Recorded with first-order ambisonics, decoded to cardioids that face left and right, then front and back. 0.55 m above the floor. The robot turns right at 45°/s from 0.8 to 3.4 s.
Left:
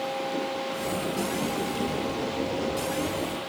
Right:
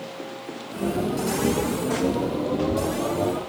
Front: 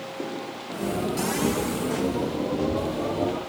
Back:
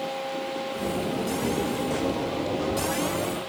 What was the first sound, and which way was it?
Only background noise.